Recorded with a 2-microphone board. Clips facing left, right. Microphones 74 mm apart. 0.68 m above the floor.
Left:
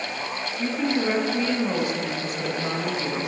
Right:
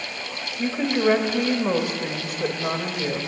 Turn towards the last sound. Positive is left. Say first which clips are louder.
# right 3 dB
turn(degrees=-25)  # may be behind; listen again after turning